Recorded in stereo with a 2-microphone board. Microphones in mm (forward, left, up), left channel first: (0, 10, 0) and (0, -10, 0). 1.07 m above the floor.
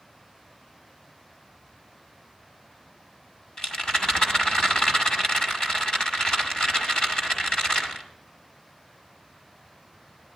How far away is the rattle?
About 1.7 m.